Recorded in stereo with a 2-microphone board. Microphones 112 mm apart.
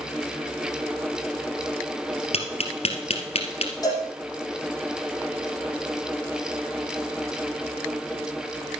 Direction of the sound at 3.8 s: 30° left (ahead or behind).